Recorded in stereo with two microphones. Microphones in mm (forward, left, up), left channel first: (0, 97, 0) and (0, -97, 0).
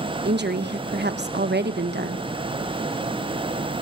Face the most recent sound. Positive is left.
turn(degrees=-60)  # may be behind; listen again after turning